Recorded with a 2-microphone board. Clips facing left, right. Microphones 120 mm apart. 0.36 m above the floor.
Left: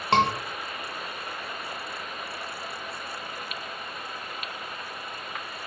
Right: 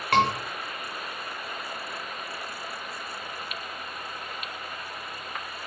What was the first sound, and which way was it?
A scream, 25° left (ahead or behind).